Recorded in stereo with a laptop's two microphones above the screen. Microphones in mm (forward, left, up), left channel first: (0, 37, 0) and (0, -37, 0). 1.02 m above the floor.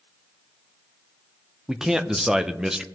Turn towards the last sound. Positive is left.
turn(degrees=-10)  # may be behind; listen again after turning